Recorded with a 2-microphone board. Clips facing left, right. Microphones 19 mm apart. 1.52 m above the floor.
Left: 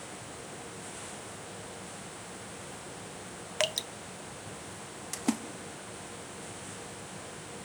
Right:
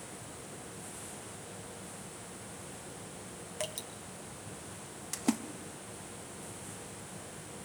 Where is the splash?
Centre (ahead or behind), 0.9 m.